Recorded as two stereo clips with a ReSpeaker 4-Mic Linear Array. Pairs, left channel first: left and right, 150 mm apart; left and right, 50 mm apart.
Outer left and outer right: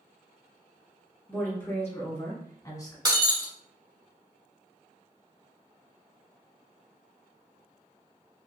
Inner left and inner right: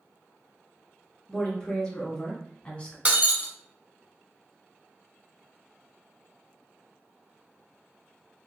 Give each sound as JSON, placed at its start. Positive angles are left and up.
{"t": 1.3, "sound": "a woman speaking", "side_deg": 15, "distance_m": 1.6}
{"t": 3.0, "sound": "breaking glass", "side_deg": -30, "distance_m": 0.9}